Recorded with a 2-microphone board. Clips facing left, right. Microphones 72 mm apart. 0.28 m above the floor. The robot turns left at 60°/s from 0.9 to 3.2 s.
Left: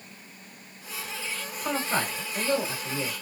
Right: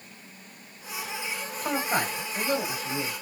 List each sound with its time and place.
1.6 s a man speaking: 10° right (ahead or behind), 1.5 m; by 3.1 s 20° left (ahead or behind), 1.5 m